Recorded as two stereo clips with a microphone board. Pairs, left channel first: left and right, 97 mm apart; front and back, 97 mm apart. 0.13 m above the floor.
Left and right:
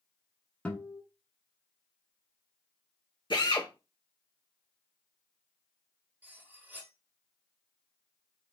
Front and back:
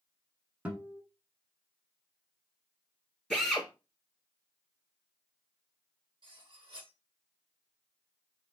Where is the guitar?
140° left, 0.9 m.